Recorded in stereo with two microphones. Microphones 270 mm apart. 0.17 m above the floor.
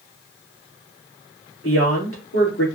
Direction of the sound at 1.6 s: 55° left (ahead or behind).